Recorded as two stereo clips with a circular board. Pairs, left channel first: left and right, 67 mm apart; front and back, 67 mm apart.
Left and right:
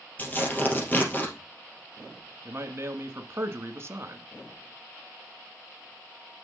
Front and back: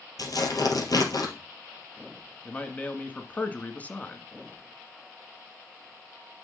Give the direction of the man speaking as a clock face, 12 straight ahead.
2 o'clock.